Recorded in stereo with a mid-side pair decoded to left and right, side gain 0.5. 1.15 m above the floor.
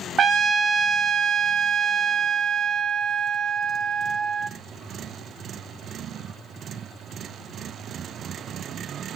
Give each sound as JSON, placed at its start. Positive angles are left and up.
{"t": 0.2, "sound": "a trumpet", "azimuth_deg": -40, "distance_m": 0.9}